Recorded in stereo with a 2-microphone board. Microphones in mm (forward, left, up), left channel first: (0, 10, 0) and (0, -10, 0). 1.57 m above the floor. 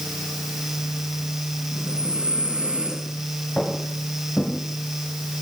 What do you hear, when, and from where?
1.7 s breathing: 60° right (ahead or behind), 6 m
3.6 s footsteps: 75° left (ahead or behind), 6.5 m